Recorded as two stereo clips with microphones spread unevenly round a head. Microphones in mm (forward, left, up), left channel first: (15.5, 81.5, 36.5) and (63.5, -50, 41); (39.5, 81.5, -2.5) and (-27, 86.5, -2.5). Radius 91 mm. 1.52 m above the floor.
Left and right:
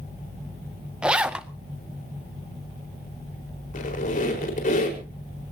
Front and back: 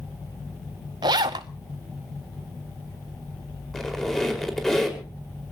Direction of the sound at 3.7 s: 80° left.